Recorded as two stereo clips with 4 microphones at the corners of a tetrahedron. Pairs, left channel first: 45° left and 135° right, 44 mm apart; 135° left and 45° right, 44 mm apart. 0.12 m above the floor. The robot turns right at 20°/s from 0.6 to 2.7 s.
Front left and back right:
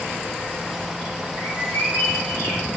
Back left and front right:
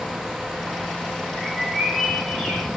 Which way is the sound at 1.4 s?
45° left.